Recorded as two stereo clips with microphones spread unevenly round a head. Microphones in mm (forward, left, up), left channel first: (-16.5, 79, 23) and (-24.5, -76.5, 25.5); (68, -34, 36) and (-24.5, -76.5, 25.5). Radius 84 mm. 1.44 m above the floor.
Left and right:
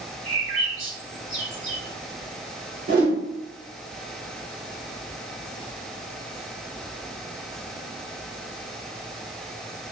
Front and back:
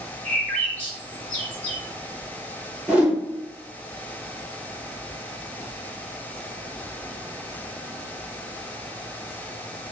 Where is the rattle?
I don't hear a rattle.